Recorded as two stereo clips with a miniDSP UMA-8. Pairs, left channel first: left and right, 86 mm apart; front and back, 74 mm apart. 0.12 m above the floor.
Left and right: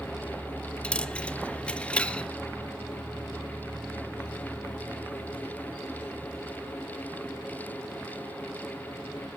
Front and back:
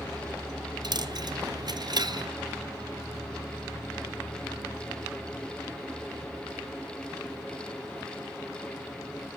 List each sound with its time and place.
0.8 s a dropped coin: 165° left, 1.0 m